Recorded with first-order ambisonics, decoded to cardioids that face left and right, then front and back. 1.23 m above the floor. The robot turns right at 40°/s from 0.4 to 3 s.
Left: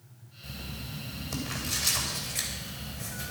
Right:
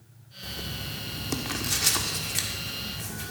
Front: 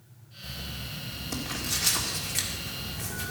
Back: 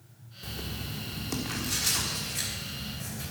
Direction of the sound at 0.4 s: 135° right.